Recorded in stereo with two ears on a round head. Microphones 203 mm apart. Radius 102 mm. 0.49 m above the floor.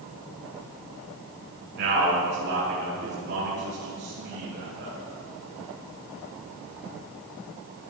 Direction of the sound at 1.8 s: 45° right (ahead or behind).